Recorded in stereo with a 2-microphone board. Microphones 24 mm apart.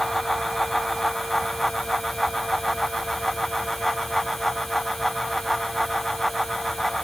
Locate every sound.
Only background noise.